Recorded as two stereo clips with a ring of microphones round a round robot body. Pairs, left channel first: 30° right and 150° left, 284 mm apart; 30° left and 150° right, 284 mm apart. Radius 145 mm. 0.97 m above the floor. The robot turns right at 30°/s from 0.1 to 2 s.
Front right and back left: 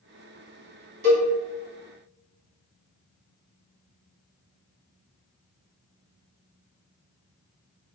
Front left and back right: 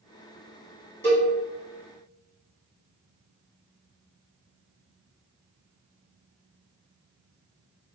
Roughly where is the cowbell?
Behind left.